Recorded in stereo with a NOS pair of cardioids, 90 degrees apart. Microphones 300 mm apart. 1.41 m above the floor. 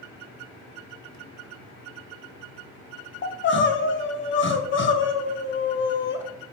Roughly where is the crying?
Ahead left.